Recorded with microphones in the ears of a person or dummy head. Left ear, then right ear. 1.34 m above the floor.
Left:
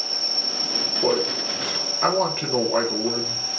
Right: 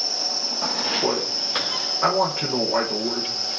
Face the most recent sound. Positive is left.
turn(degrees=5)  # may be behind; listen again after turning